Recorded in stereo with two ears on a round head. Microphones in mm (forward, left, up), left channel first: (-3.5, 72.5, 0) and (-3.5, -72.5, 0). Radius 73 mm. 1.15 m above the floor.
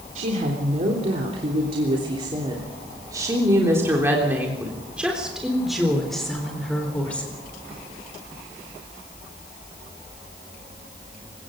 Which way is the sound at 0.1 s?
50° right (ahead or behind).